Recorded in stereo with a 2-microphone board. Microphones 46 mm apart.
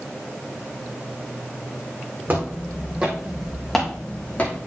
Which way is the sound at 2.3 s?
40° right (ahead or behind).